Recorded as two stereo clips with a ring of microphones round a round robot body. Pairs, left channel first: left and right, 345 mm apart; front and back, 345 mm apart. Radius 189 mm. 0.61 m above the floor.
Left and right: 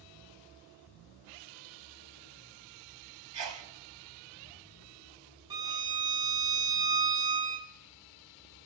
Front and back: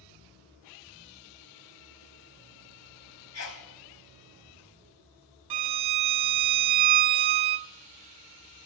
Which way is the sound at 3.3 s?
45° right.